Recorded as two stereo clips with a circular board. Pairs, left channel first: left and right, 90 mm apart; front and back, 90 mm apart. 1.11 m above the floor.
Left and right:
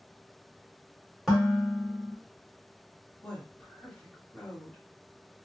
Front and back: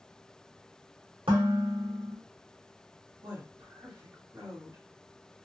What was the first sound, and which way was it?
Dishes clattering, 175° right.